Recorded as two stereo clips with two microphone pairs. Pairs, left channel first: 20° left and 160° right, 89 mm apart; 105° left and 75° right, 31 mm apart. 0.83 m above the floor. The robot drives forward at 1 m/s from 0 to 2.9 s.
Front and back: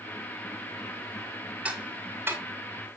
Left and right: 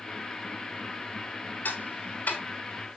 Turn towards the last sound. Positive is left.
turn(degrees=140)